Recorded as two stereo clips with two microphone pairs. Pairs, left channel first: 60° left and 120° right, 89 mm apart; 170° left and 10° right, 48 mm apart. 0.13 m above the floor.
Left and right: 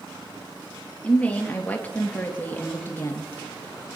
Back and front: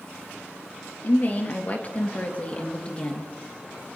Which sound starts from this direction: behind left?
A woman speaking, at 1.0 s.